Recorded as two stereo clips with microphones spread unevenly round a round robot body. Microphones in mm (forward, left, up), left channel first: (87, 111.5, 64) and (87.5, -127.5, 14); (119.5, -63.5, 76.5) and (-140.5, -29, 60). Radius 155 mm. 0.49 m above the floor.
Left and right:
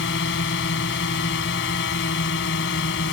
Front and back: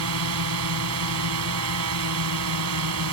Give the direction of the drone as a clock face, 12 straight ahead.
7 o'clock.